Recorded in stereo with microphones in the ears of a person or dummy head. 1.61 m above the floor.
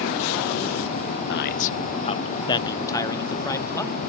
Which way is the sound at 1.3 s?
55° left (ahead or behind).